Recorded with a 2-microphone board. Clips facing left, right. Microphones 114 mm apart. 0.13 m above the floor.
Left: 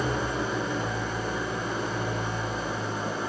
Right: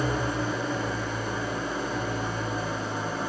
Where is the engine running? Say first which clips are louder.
Right 1 dB; 25° left (ahead or behind), 5 m.